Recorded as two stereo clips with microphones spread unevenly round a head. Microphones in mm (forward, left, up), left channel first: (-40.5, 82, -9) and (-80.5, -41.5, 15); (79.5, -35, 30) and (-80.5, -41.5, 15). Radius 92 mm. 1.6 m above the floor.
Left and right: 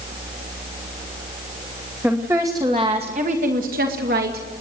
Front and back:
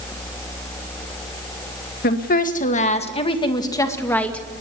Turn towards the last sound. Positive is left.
turn(degrees=-80)